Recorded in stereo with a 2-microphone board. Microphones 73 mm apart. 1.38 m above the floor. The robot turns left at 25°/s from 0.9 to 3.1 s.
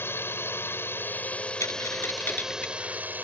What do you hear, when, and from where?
0.0 s a drone: 30° left; by 3.2 s 25° right
1.6 s a dropped coin: 40° left (ahead or behind); by 2.8 s 20° left (ahead or behind)